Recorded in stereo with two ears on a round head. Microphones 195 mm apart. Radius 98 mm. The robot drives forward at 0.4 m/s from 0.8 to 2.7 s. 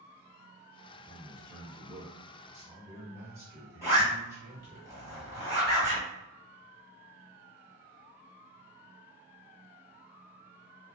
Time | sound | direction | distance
0.9 | a man speaking | 25° right (ahead or behind) | 0.9 m
3.8 | a zipper | 15° left (ahead or behind) | 1.9 m